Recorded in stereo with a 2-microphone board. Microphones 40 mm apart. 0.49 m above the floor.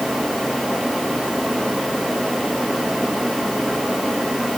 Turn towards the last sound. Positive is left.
No sound to turn to.